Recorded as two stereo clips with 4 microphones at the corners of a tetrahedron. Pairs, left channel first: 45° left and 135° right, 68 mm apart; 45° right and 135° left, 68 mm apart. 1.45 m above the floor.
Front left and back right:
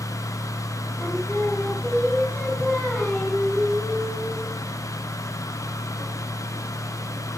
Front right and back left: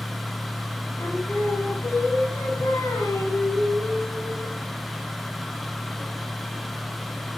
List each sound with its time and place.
1.0 s singing: 20° right, 4.5 m